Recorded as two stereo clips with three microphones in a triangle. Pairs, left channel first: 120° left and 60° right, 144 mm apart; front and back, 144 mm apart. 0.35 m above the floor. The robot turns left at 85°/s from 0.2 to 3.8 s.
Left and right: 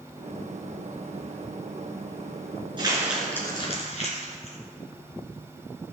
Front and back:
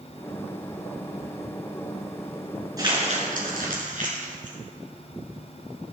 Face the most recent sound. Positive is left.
turn(degrees=160)